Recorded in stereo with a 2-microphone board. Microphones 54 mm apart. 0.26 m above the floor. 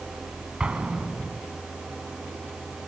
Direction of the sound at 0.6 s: 15° right (ahead or behind).